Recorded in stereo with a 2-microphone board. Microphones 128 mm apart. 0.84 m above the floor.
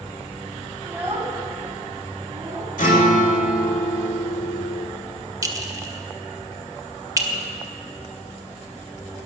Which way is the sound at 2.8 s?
75° left (ahead or behind).